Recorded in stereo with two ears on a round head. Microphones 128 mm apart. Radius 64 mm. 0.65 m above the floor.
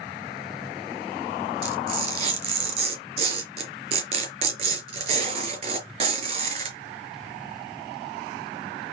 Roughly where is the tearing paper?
Right.